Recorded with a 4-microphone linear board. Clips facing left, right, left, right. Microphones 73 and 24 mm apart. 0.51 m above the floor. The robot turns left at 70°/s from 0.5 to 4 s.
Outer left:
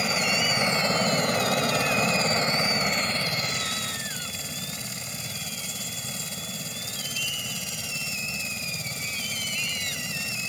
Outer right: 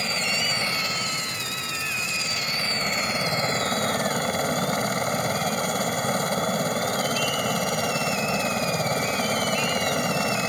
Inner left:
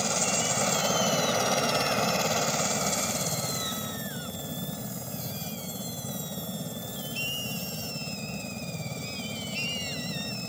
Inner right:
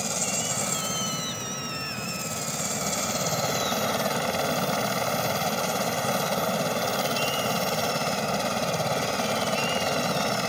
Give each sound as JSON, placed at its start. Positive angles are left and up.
{"t": 0.0, "sound": "a helicopter", "azimuth_deg": 170}